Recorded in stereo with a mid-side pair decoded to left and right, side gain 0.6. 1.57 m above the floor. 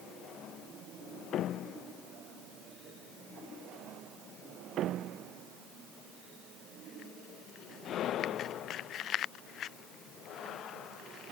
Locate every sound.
Only background noise.